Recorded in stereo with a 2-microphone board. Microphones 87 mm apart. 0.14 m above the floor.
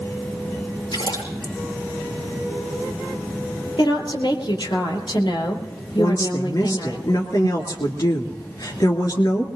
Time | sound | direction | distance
0.9 | a splash | 80° left | 5.5 m
3.8 | a woman speaking | 65° left (ahead or behind) | 4 m
6.0 | a woman speaking | 50° left (ahead or behind) | 2.5 m